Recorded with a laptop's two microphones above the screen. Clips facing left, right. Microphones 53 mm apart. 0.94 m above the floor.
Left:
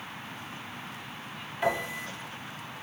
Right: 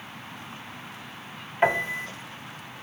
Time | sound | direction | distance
1.6 | a piano | 40° right (ahead or behind) | 0.8 m